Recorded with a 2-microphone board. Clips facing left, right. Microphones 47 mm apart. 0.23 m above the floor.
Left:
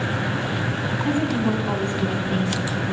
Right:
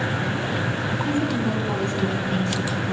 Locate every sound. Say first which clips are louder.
1.1 s a woman speaking: left 3 dB; 40° left (ahead or behind), 2 m; by 2.9 s 10° left (ahead or behind), 1.9 m